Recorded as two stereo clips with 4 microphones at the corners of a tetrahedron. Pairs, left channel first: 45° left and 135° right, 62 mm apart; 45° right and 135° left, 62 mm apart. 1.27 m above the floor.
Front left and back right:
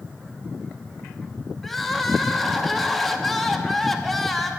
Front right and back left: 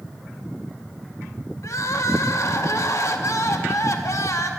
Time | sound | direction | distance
1.6 | crying | 40° right | 0.9 m